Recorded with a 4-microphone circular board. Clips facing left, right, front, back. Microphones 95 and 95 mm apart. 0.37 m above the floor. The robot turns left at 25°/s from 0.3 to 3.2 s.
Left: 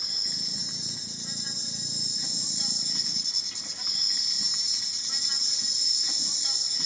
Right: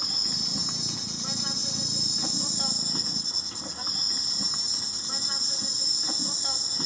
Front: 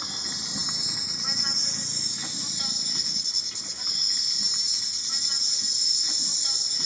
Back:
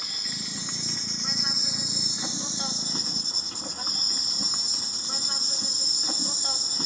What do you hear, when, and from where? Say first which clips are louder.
0.0 s an insect: right 7 dB, front 1 dB; 65° right, 0.7 m; by 6.9 s 135° right, 0.7 m